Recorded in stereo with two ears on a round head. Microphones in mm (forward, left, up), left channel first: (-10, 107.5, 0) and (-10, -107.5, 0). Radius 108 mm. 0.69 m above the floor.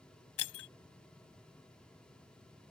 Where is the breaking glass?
60° left (ahead or behind).